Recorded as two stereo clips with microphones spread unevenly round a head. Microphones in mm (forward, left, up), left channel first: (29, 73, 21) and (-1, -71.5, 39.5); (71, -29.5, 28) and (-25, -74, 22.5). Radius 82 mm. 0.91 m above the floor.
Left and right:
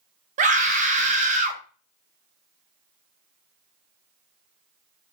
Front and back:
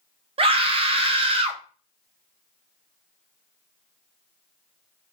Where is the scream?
140° right, 0.6 m.